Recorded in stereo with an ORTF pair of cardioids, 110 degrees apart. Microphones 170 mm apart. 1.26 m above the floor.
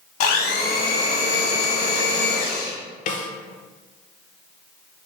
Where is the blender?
65° left, 1.1 m.